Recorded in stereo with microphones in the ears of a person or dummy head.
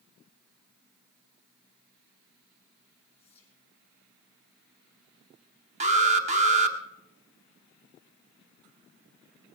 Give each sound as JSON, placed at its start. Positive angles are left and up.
{"t": 3.2, "sound": "whispering", "side_deg": 15, "distance_m": 5.0}
{"t": 5.8, "sound": "an alarm", "side_deg": -30, "distance_m": 1.0}